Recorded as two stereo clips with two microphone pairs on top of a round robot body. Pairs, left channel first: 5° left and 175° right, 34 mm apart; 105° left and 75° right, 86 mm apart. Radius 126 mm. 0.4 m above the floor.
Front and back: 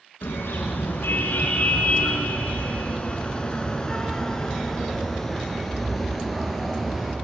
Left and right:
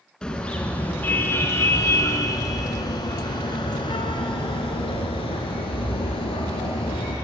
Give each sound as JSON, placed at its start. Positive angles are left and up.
{"t": 0.2, "sound": "a car horn", "azimuth_deg": 20, "distance_m": 3.0}